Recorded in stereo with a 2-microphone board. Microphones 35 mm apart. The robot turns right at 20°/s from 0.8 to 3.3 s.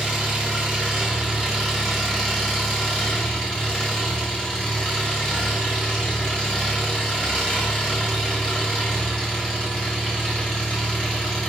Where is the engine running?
25° right, 1.5 m; by 11.5 s 25° left, 1.5 m.